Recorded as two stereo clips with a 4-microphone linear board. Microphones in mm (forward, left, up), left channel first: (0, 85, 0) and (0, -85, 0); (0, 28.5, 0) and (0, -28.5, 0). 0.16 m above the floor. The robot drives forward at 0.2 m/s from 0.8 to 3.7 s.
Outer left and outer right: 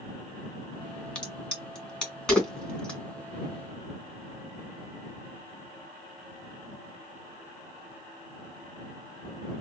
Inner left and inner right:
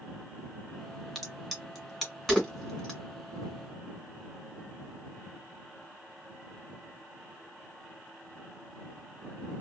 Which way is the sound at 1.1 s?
5° left (ahead or behind).